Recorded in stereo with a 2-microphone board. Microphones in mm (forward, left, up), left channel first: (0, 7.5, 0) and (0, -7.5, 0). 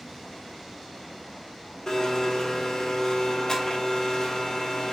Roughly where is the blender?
Left.